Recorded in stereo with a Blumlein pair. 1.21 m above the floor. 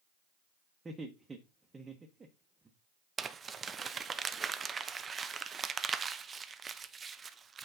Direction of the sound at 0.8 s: 10° right.